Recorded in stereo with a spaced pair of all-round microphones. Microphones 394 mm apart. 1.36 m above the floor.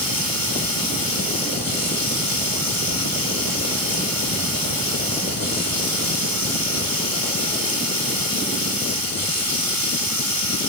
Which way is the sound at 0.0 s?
60° left (ahead or behind).